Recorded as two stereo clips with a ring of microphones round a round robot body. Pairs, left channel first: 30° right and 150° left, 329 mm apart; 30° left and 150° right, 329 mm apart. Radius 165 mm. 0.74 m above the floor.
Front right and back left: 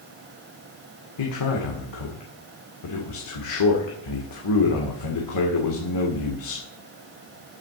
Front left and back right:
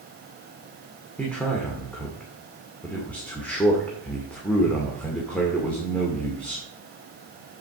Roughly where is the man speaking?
Ahead right.